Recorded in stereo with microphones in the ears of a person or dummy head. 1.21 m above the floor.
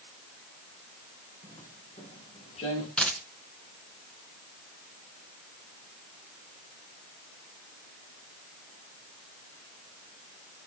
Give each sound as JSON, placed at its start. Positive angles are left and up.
{"t": 1.4, "sound": "footsteps", "side_deg": 35, "distance_m": 8.5}
{"t": 3.0, "sound": "a dropped coin", "side_deg": 5, "distance_m": 3.0}